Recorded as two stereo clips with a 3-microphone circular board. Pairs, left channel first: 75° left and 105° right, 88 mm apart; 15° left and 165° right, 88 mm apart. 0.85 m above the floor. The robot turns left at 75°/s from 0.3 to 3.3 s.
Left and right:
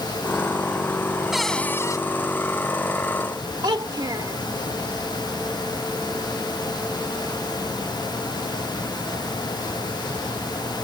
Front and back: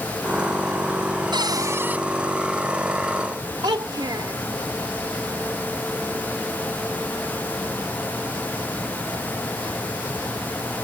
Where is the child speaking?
135° right.